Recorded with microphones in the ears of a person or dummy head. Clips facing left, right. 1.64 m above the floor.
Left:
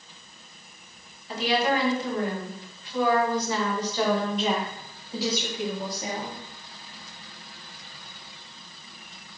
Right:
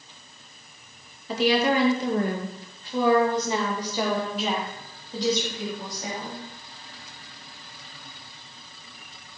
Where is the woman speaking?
60° right (ahead or behind), 2.5 m; by 6.4 s 15° left (ahead or behind), 4.5 m.